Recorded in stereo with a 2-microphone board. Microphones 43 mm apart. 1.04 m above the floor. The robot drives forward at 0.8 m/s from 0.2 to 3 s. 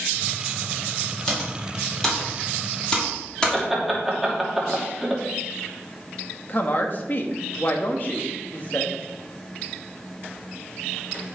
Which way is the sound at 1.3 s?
15° left (ahead or behind).